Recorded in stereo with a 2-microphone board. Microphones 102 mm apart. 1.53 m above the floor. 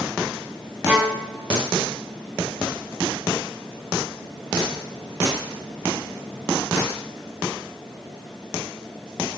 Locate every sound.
0.9 s a violin: 15° right (ahead or behind), 0.9 m